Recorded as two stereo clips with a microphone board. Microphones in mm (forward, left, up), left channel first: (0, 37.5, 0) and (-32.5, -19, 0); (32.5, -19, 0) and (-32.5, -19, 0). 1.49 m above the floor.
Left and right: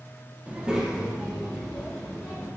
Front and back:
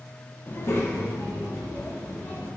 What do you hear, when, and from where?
0.5 s a child speaking: 55° right, 0.6 m; by 2.5 s 30° right, 2.5 m